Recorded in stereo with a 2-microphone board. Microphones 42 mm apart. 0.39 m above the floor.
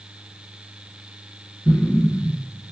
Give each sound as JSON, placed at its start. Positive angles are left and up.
{"t": 1.6, "sound": "an explosion", "side_deg": 20, "distance_m": 1.2}